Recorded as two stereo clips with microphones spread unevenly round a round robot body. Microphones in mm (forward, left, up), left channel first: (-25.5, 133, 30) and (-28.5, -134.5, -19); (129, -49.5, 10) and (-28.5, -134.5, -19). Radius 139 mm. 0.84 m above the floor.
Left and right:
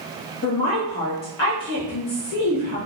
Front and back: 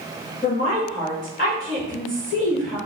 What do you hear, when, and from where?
0.4 s a woman speaking: 95° left, 1.4 m